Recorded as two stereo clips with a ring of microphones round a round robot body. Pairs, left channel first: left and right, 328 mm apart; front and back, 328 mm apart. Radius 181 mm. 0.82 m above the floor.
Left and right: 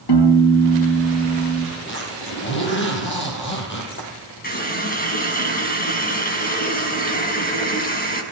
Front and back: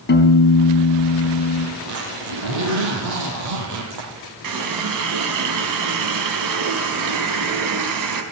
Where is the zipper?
145° left, 7 m.